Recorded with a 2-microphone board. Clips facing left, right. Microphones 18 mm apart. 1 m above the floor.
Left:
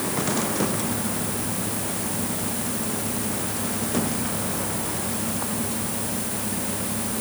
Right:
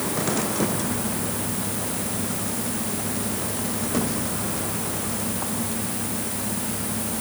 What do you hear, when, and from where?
Only background noise.